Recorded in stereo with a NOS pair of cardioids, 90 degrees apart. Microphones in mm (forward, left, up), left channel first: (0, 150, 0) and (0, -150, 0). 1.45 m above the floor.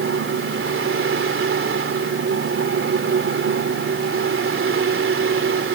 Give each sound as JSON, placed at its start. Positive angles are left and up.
{"t": 0.0, "sound": "a fan", "azimuth_deg": -40}